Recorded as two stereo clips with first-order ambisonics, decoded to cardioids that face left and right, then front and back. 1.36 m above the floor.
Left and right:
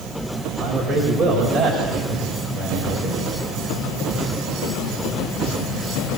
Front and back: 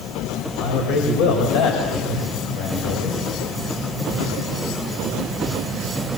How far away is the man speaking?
About 5.5 m.